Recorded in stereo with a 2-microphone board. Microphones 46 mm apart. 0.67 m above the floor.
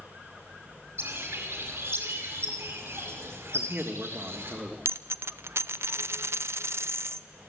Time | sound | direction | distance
1.0 | a bird | 55° right (ahead or behind) | 4.5 m
3.5 | a man speaking | 40° right (ahead or behind) | 1.4 m
4.8 | a dropped coin | 70° right (ahead or behind) | 0.6 m